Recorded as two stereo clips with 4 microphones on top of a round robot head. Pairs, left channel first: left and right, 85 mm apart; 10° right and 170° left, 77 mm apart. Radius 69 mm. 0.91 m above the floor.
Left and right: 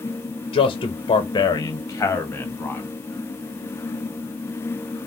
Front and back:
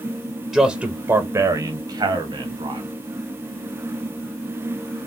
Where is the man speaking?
75° left, 0.8 m; by 2.9 s 160° left, 1.6 m.